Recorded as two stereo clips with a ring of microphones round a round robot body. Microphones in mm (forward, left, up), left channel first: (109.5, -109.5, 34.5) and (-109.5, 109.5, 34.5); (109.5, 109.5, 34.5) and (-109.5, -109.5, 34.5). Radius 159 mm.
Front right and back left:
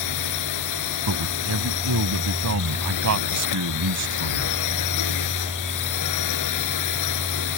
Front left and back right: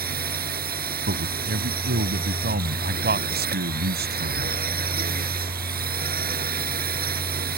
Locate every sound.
0.0 s a drone: 75° right
1.1 s a man speaking: 170° left